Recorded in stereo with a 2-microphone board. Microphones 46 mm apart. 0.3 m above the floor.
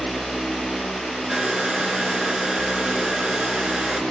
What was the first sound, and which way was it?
A hair dryer, 15° right (ahead or behind).